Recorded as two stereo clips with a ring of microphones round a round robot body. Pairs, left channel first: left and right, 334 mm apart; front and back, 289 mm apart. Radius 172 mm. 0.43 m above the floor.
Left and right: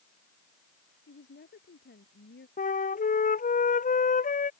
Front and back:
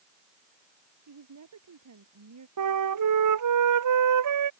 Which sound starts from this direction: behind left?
A woman speaking, at 1.1 s.